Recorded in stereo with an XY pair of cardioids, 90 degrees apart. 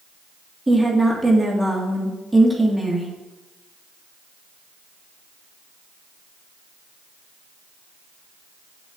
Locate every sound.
0.7 s a woman speaking: 15° right, 1.9 m